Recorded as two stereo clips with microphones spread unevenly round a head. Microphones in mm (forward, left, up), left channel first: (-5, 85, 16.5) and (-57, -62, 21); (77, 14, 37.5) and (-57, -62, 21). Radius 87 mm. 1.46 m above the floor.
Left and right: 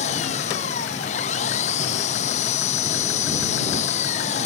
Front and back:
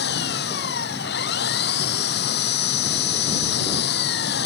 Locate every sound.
0.0 s an engine running: 15° left